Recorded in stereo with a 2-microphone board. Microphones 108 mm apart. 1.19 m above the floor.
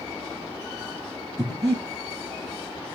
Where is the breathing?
30° right (ahead or behind), 6 m.